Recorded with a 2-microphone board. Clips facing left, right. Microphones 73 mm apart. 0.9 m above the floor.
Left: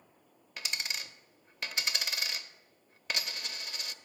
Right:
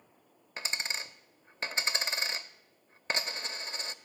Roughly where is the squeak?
I don't hear a squeak.